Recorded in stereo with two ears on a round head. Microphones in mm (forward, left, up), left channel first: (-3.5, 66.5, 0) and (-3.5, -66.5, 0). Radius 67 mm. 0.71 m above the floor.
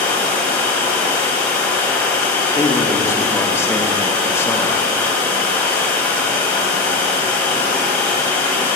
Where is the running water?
10° left (ahead or behind), 2.5 m.